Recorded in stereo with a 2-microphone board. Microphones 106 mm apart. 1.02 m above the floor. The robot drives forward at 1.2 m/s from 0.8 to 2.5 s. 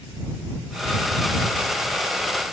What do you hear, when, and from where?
Only background noise.